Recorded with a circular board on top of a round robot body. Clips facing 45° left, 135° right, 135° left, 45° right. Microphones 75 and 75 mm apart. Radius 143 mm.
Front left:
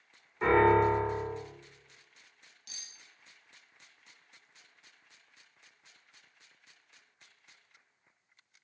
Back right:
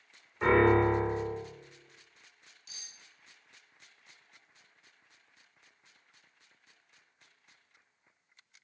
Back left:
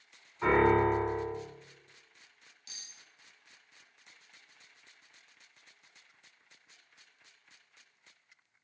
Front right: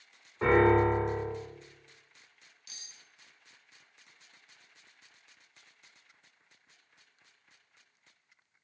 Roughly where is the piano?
Ahead right.